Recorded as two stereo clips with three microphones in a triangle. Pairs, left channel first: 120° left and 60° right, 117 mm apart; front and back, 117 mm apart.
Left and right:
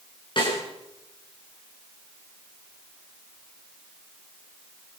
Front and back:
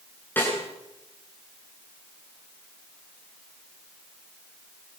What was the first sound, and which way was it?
A snare drum, 75° left.